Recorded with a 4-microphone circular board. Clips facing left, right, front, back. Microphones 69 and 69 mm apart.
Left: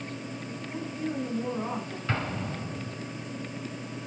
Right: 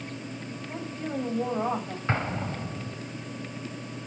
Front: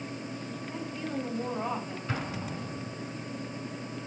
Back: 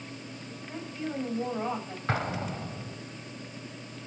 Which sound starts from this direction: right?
A woman speaking, at 0.7 s.